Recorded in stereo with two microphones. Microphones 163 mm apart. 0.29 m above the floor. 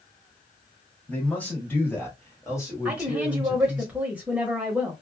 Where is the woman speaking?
10° right (ahead or behind), 0.9 m.